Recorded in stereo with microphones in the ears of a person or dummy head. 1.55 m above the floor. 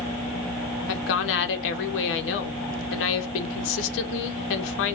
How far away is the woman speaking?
About 0.8 m.